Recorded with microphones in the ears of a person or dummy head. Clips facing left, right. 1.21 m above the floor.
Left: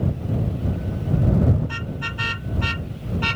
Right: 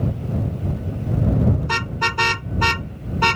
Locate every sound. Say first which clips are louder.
1.6 s a car horn: right 4 dB; 85° right; by 3.4 s 75° right (ahead or behind)